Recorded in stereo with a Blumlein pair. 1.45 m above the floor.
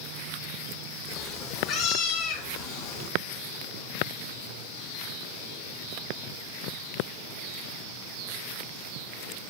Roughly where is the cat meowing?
Ahead left.